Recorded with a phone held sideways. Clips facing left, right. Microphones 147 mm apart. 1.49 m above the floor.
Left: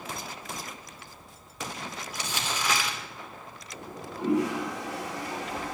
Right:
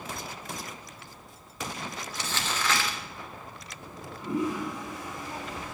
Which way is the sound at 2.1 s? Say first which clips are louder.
Even; 10° left (ahead or behind).